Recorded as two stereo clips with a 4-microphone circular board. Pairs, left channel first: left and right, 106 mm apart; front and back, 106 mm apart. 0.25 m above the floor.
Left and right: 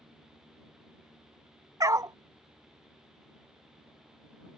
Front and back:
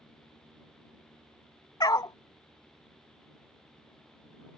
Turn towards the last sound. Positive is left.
turn(degrees=-40)